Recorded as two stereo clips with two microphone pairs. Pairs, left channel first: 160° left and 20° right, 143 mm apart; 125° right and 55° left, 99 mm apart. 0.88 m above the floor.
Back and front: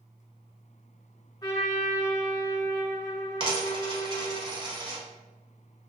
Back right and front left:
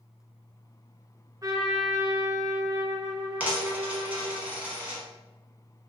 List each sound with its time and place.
1.4 s a trumpet: 100° left, 0.6 m
3.4 s a dropped coin: 10° right, 0.9 m